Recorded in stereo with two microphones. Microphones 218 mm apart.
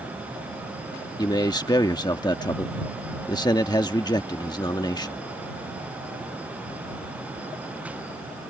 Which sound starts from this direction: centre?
A man speaking, at 1.2 s.